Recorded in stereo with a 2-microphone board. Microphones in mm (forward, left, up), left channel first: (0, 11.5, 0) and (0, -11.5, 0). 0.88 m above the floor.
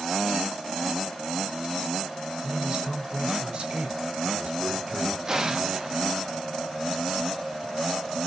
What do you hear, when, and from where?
2.4 s a man speaking: 50° right (ahead or behind), 3 m
5.3 s an explosion: 30° right (ahead or behind), 1.3 m